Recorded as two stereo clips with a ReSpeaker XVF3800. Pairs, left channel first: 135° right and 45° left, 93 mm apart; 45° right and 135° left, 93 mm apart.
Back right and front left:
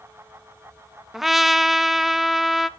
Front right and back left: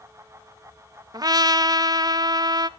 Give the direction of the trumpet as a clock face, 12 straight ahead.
8 o'clock.